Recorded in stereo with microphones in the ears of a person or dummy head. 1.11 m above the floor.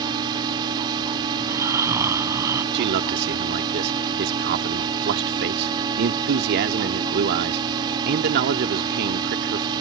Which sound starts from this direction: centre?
A drone, at 0.0 s.